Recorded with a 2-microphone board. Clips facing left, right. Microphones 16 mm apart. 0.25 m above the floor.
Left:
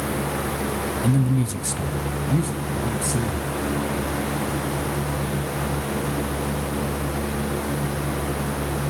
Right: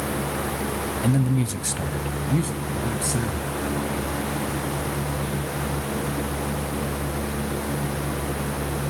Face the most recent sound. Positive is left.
turn(degrees=-25)  # may be behind; listen again after turning